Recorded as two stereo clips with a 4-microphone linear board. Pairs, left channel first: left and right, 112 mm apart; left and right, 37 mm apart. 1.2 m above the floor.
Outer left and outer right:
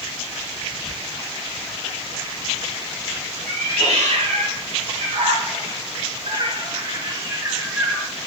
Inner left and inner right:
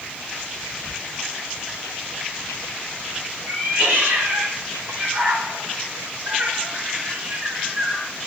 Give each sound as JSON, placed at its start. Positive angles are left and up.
{"t": 3.5, "sound": "a cat meowing", "side_deg": -80, "distance_m": 3.0}